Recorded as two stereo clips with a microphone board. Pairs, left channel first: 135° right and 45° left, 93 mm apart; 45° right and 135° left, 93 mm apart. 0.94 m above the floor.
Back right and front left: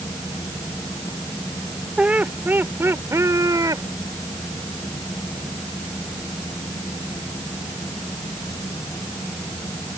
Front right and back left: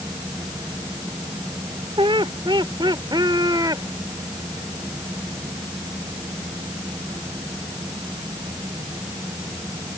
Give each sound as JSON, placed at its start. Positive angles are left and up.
{"t": 2.0, "sound": "laughter", "azimuth_deg": 125}